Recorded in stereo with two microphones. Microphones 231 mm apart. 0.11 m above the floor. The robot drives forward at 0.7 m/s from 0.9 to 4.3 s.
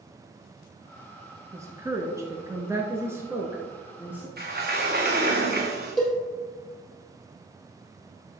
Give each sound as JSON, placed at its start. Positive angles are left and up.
{"t": 1.5, "sound": "a woman speaking", "side_deg": -10, "distance_m": 1.1}
{"t": 4.4, "sound": "a sliding door", "side_deg": -45, "distance_m": 1.9}
{"t": 6.0, "sound": "a cowbell", "side_deg": 0, "distance_m": 3.5}